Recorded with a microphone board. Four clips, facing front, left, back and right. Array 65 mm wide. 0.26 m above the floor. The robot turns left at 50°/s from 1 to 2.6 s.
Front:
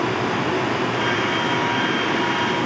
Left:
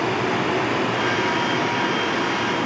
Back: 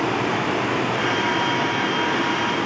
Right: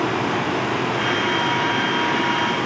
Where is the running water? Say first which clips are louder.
Even, even; 105° left, 2.5 m; by 2.7 s 25° left, 2.5 m.